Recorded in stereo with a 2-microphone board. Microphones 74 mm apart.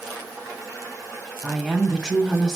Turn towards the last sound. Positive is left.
turn(degrees=0)  # may be behind; listen again after turning